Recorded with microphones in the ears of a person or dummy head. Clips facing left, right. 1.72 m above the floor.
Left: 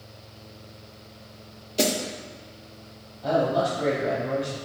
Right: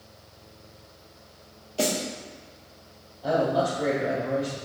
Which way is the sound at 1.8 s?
20° left (ahead or behind).